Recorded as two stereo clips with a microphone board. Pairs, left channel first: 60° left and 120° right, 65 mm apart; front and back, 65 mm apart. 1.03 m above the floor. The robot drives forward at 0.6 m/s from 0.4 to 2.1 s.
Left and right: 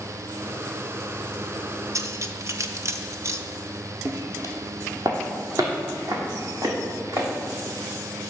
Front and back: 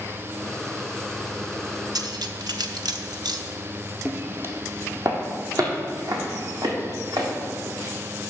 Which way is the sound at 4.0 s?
125° right.